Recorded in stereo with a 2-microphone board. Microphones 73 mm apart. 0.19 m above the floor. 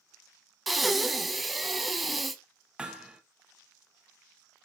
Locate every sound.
0.7 s breathing: centre (ahead or behind), 0.6 m
2.8 s hammering: 15° right (ahead or behind), 0.9 m